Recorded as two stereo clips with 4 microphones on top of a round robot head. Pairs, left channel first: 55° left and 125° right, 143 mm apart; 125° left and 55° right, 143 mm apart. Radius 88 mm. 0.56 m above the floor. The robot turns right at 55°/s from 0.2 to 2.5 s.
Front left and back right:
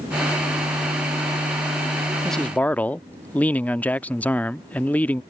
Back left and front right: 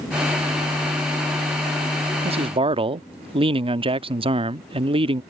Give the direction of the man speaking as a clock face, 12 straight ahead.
1 o'clock.